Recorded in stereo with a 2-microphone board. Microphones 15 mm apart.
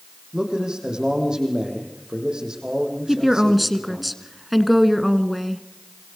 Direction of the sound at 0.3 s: 55° right (ahead or behind).